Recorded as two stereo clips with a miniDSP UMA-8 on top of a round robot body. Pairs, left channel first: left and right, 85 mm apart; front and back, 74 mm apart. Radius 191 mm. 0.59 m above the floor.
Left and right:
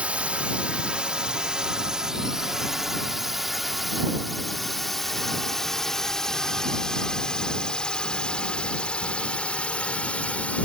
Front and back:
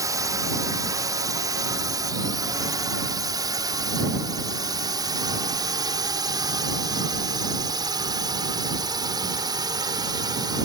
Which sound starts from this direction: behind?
A drone, at 0.0 s.